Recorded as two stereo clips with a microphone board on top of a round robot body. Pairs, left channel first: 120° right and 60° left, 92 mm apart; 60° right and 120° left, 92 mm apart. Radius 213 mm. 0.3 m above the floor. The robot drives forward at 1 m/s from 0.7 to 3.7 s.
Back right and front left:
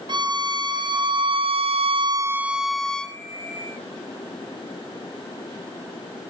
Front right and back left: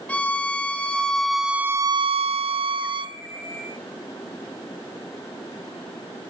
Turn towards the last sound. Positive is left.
turn(degrees=165)